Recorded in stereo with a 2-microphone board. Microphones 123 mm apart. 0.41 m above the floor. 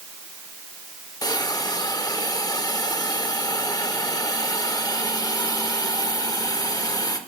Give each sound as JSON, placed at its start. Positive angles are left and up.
{"t": 1.2, "sound": "a hiss", "side_deg": 30, "distance_m": 0.7}